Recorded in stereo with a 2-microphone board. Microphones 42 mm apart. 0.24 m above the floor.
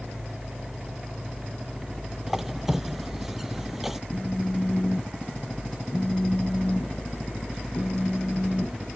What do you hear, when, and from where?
2.3 s a squeak: 5° right (ahead or behind)
4.1 s a phone buzzing: 30° left (ahead or behind)